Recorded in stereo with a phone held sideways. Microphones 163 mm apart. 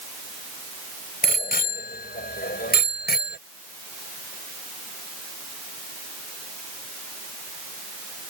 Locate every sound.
1.2 s a bicycle bell: 65° left (ahead or behind); by 3.4 s 80° left